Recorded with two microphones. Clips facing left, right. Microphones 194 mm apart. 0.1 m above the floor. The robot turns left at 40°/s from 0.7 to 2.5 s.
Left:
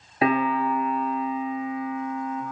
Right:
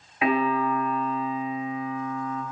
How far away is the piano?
About 1.9 m.